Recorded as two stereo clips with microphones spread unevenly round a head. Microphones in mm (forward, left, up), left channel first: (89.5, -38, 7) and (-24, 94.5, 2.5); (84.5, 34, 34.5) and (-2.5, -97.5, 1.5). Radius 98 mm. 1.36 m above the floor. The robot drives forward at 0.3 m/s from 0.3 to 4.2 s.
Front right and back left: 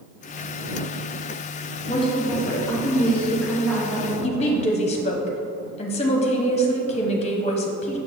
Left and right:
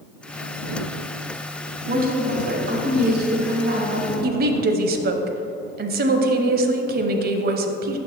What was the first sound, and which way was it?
A woman speaking, 110° right.